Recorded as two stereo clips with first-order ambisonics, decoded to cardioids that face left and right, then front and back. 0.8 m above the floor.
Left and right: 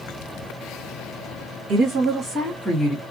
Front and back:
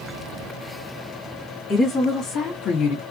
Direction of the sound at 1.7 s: 65° right.